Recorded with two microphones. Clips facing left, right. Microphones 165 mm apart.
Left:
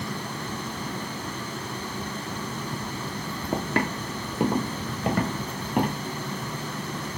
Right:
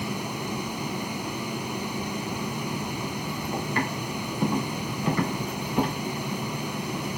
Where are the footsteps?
70° left (ahead or behind), 2.0 m; by 6.0 s 65° left (ahead or behind), 3.5 m.